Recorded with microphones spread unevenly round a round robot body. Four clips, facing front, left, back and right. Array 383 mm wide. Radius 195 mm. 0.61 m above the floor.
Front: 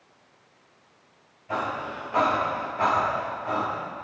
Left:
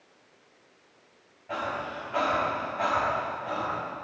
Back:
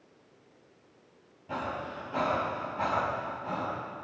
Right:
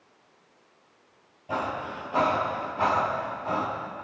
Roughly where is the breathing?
Behind right.